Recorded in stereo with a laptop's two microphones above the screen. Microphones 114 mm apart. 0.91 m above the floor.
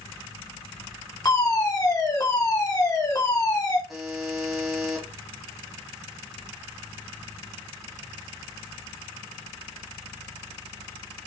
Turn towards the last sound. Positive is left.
turn(degrees=0)  # may be behind; listen again after turning